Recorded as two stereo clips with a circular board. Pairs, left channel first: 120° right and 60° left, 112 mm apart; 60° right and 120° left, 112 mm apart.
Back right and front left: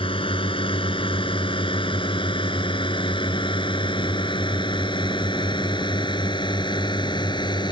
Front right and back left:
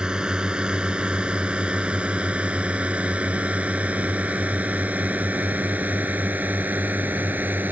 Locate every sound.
0.0 s a drone: 155° right; by 7.7 s 165° right